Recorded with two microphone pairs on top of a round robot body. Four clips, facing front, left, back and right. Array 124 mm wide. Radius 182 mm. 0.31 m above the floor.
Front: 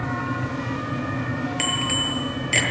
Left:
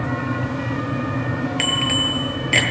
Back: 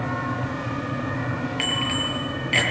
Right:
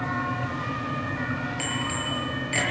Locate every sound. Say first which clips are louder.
1.6 s a bicycle bell: left 7 dB, even; 70° left, 7.5 m